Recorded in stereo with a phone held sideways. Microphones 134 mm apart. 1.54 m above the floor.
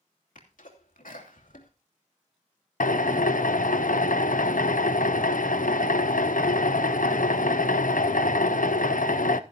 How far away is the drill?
About 0.7 m.